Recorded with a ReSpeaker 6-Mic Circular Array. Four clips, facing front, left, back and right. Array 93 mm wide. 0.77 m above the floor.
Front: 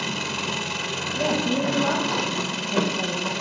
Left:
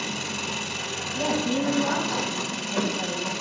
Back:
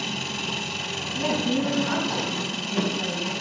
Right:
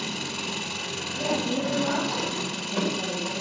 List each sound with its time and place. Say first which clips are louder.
0.0 s an engine running: left 1 dB, front 3 dB; 5° left, 1.5 m
1.1 s a woman speaking: left 2 dB, front 1 dB; 5° left, 4.5 m